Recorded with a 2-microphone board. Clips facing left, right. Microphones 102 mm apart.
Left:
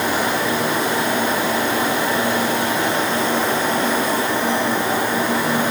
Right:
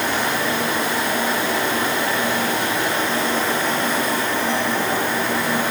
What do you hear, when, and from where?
Only background noise.